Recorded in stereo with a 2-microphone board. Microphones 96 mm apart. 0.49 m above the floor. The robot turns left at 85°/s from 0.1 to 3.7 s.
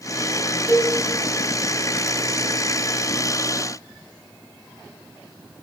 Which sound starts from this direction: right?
A cowbell, at 0.7 s.